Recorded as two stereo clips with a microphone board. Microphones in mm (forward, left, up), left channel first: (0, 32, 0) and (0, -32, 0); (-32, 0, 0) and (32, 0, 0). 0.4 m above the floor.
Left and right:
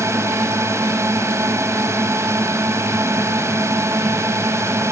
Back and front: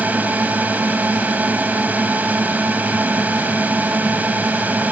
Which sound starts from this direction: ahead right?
A drone, at 0.0 s.